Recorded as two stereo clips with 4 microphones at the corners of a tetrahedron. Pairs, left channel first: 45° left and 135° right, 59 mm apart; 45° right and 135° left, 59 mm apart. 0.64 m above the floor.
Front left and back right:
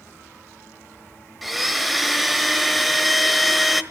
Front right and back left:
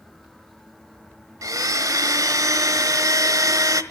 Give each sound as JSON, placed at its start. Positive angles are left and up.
{"t": 1.4, "sound": "a blender", "azimuth_deg": 135, "distance_m": 1.2}